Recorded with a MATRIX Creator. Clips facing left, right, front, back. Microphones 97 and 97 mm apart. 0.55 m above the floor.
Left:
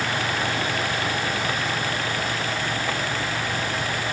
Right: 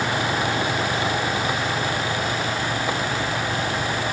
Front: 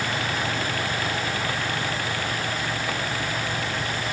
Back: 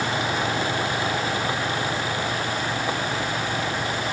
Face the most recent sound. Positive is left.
No sound to turn to.